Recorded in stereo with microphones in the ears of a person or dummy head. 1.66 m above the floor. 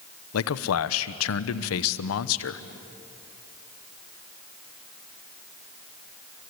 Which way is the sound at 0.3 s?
80° left.